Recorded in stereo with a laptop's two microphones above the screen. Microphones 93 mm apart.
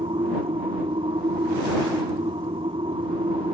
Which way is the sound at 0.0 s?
75° right (ahead or behind).